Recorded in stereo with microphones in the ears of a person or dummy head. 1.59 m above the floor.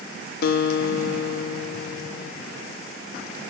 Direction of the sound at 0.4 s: 60° left (ahead or behind).